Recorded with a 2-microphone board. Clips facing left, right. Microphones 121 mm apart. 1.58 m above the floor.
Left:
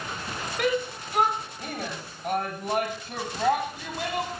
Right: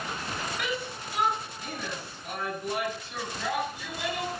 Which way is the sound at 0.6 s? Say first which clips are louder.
Left 7 dB; 55° left (ahead or behind).